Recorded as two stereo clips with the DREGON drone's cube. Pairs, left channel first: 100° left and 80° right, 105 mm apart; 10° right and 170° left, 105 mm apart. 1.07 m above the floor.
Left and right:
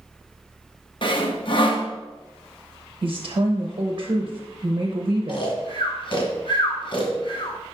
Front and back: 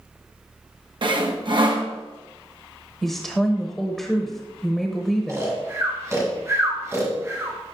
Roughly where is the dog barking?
I don't hear a dog barking.